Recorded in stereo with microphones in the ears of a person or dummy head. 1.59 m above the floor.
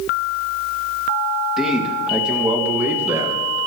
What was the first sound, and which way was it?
A man speaking, 5° right (ahead or behind).